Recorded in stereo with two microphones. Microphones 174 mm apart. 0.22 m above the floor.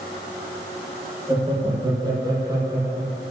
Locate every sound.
1.3 s laughter: 25° right (ahead or behind), 7 m; by 3.2 s 15° right (ahead or behind), 7 m